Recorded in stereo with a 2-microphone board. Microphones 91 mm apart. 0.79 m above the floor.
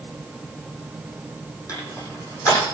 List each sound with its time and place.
1.7 s crushing: 40° left (ahead or behind), 8.5 m